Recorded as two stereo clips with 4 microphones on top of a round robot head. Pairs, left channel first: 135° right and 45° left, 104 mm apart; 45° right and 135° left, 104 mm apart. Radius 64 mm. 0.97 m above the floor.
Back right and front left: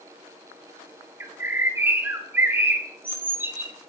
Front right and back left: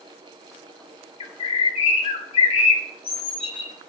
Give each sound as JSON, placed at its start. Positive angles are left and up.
{"t": 1.2, "sound": "a bird", "azimuth_deg": -25, "distance_m": 1.9}